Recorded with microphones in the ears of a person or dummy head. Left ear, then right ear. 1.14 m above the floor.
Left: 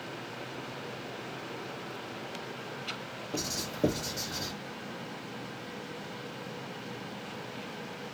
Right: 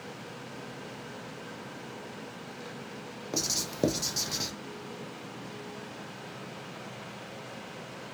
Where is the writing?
75° right (ahead or behind), 0.6 m.